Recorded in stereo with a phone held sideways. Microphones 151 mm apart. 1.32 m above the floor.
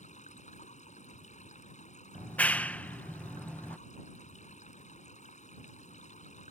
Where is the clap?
10° left (ahead or behind).